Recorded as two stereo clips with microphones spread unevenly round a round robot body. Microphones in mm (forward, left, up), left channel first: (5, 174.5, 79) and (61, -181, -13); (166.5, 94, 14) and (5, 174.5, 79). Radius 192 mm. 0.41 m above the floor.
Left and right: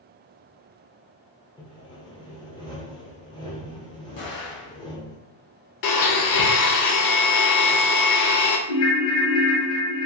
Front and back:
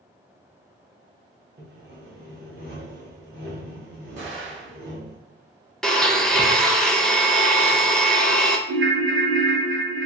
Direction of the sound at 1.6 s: 170° right.